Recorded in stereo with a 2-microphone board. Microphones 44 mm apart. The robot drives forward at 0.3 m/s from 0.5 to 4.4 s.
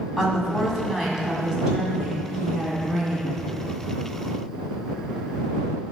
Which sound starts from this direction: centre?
A woman speaking, at 0.2 s.